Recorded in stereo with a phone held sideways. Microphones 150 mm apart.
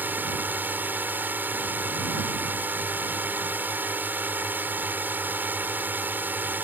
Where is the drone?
15° right (ahead or behind).